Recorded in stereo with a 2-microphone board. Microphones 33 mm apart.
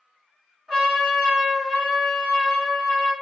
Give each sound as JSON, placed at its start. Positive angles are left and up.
{"t": 0.7, "sound": "a trumpet", "side_deg": 5, "distance_m": 1.6}